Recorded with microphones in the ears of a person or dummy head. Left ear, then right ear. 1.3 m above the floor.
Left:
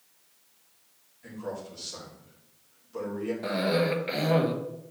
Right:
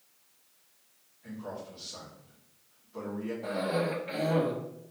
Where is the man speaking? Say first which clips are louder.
Left 4 dB; 80° left, 3.5 m.